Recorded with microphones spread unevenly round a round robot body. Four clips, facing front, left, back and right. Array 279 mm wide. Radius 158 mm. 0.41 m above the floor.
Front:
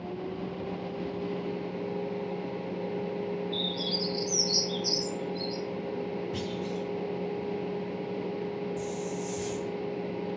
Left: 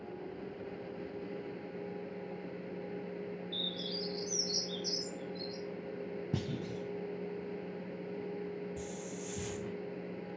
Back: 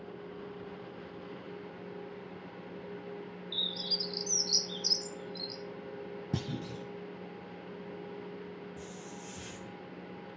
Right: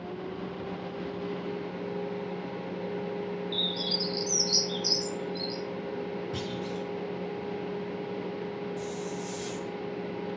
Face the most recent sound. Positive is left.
turn(degrees=75)